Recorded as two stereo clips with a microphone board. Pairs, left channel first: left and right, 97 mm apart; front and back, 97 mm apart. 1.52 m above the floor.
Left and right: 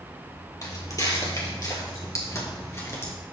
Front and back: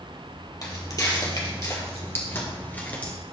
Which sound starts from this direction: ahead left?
Footsteps, at 0.6 s.